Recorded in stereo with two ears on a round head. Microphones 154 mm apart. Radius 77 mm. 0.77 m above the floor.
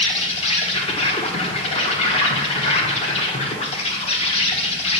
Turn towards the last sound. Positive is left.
turn(degrees=35)  # may be behind; listen again after turning